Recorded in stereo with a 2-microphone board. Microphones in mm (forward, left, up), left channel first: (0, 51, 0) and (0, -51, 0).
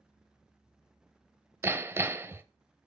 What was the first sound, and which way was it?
Hammering, 25° right (ahead or behind).